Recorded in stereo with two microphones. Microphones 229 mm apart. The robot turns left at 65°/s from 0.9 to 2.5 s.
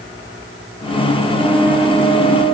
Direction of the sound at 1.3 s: 155° right.